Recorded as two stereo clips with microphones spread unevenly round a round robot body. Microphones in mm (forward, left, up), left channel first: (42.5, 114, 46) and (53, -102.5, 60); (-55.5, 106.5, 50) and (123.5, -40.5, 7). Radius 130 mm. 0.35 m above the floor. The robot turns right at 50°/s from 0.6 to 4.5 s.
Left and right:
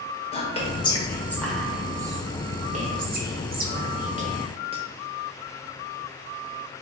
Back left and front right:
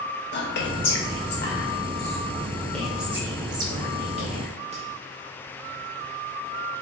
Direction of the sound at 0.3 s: 130° left.